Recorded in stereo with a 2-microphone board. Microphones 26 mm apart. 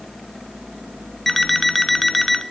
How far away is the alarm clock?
About 0.5 m.